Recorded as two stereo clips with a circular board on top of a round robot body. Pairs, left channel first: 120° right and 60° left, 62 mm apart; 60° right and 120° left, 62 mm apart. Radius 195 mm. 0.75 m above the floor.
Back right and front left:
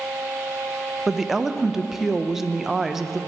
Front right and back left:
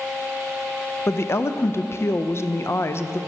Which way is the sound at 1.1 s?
25° right.